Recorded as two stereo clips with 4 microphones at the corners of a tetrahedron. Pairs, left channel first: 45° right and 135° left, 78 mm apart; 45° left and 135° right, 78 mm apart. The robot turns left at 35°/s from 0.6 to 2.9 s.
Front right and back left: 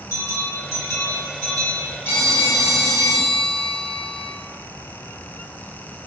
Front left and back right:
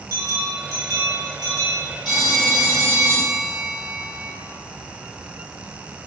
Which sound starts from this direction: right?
A bell, at 0.1 s.